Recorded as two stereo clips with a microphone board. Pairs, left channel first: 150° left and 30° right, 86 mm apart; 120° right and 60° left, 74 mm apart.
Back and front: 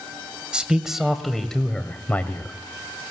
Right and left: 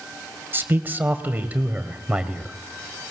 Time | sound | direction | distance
0.5 | a man speaking | 40° left | 1.7 m